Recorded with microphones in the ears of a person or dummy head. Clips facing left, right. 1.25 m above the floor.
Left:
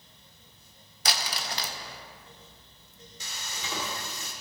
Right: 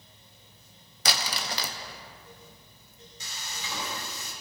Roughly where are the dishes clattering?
No dishes clattering in this recording.